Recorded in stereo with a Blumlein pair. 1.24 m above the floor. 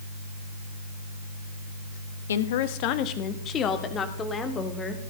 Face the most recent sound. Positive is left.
turn(degrees=15)